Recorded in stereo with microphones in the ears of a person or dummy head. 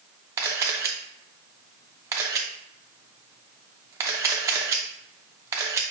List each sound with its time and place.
0.4 s a camera shutter: 20° right (ahead or behind), 0.6 m